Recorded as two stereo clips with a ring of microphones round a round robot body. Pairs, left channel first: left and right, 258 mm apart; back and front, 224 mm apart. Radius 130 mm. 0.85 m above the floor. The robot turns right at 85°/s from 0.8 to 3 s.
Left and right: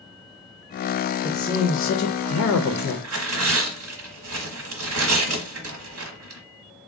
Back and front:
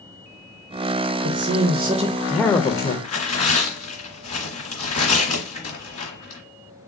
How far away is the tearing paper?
About 1.0 m.